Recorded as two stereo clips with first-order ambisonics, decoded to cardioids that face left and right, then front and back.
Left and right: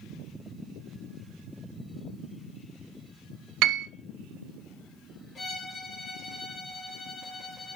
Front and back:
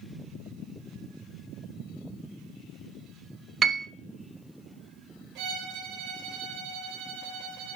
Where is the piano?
115° right, 0.7 m.